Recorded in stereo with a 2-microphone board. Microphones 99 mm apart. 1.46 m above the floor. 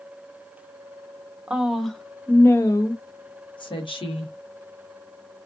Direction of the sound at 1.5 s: 10° right (ahead or behind).